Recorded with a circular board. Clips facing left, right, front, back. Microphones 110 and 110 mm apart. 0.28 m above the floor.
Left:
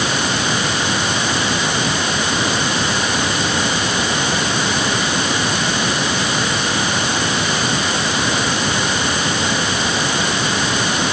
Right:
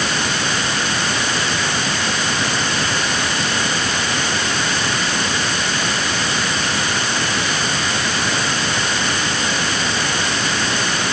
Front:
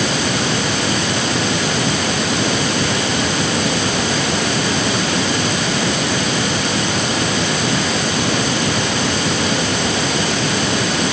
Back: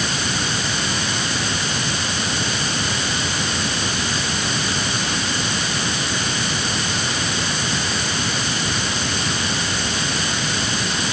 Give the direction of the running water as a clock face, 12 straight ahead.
12 o'clock.